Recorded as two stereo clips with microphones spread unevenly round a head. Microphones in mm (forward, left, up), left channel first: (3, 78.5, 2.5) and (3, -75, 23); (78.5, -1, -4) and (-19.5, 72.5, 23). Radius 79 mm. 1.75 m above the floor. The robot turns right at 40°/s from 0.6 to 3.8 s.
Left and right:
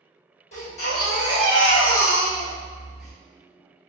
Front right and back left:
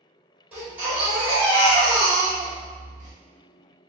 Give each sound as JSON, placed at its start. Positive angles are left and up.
{"t": 0.5, "sound": "a baby crying", "azimuth_deg": 100, "distance_m": 1.3}